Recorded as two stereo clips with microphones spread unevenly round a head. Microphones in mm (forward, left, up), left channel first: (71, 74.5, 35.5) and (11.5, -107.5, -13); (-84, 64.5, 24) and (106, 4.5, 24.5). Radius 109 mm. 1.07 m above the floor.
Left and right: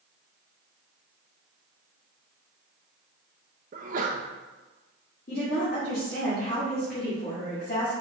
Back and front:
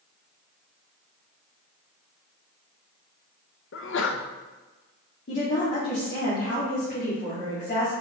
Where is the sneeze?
160° right, 0.6 m.